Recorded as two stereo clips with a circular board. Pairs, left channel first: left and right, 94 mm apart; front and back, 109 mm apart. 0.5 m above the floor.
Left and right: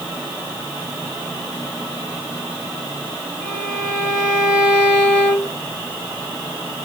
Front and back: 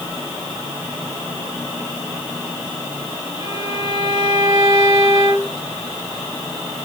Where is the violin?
150° right, 2 m.